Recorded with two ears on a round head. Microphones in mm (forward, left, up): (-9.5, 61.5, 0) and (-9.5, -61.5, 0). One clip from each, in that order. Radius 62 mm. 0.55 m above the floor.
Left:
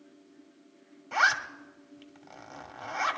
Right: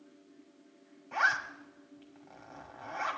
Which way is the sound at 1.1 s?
60° left (ahead or behind).